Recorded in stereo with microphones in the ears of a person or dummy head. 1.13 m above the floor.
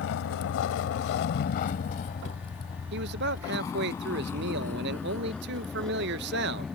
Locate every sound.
0.0 s a vehicle: 75° left (ahead or behind); by 6.8 s 5° left (ahead or behind)
2.9 s a man speaking: 55° right (ahead or behind)